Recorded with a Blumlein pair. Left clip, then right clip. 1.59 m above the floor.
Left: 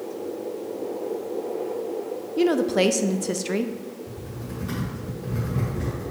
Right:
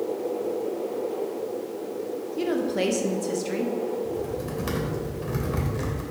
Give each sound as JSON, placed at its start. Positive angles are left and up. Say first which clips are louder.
{"t": 2.4, "sound": "a woman speaking", "louder": "left 6 dB", "azimuth_deg": 20, "distance_m": 0.6}
{"t": 4.0, "sound": "typing on a keyboard", "louder": "right 8 dB", "azimuth_deg": -45, "distance_m": 2.5}